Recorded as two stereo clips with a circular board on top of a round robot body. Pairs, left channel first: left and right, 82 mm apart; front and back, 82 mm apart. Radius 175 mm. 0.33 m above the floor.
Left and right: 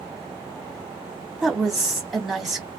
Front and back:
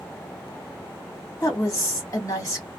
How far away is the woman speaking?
About 1.8 m.